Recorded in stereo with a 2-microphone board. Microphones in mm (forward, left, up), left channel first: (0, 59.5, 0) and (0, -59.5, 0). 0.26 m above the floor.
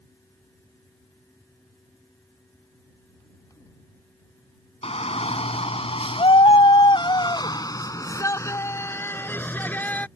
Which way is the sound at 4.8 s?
60° left (ahead or behind).